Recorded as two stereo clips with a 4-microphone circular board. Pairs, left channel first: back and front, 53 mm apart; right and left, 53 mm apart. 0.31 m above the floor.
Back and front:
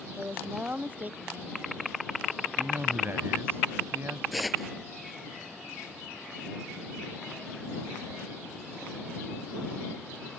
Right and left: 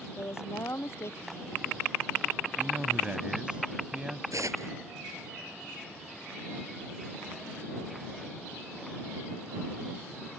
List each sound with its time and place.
0.2 s a woman speaking: 60° right
2.6 s a man speaking: 25° left
4.3 s tearing paper: 90° left